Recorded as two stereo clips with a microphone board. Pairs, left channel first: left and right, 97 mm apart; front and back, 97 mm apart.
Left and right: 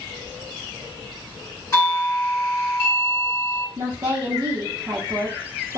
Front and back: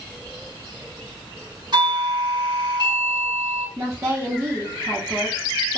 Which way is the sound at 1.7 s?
145° left.